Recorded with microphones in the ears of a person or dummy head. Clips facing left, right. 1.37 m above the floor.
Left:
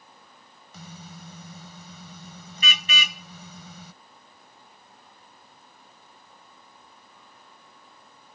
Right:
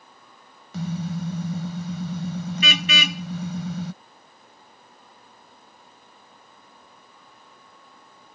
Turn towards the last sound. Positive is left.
turn(degrees=-55)  # may be behind; listen again after turning